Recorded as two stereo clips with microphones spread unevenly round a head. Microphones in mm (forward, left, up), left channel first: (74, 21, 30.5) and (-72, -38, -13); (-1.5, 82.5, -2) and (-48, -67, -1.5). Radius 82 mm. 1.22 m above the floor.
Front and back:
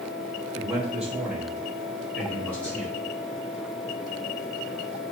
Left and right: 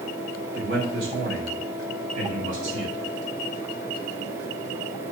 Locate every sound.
0.5 s a man speaking: 75° right, 4.5 m; by 3.0 s 55° right, 5 m